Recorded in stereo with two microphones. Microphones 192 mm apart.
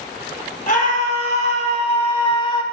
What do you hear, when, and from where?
0.7 s a scream: 45° left (ahead or behind), 4 m; by 2.6 s 25° left (ahead or behind), 2.5 m